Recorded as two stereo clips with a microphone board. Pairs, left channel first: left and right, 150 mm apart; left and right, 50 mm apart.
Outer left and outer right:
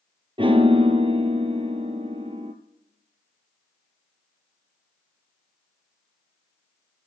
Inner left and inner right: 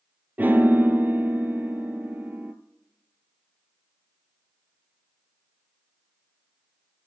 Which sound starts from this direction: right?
A piano, at 0.4 s.